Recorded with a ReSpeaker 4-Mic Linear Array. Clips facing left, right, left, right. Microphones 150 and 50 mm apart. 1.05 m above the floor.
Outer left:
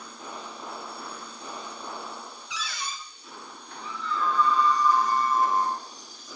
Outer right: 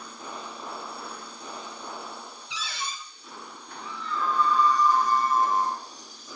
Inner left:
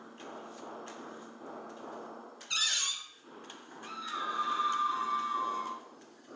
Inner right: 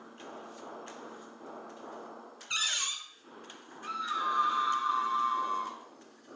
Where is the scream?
75° right (ahead or behind), 4 m.